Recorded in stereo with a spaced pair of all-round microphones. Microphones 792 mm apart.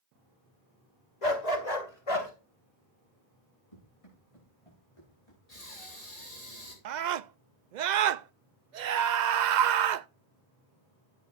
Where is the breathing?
50° left (ahead or behind), 3.5 m.